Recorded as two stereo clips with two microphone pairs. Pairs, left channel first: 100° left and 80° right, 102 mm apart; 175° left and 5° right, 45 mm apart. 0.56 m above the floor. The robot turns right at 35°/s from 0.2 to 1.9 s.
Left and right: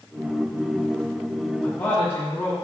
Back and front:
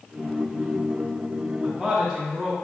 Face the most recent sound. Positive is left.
turn(degrees=70)